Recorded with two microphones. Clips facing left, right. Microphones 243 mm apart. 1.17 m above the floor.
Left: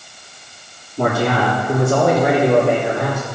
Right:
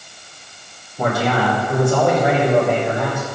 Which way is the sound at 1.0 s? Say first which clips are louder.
Left 2 dB; 80° left.